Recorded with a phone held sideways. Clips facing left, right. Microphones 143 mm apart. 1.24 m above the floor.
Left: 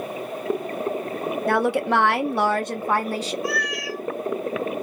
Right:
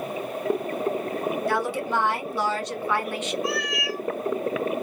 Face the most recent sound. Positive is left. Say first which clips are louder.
# even
turn(degrees=-25)  # may be behind; listen again after turning